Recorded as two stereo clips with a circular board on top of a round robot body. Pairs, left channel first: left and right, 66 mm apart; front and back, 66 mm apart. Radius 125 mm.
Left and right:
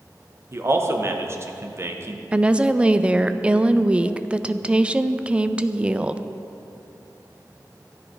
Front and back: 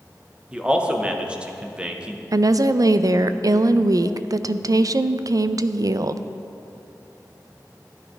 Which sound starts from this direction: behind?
A woman speaking, at 2.3 s.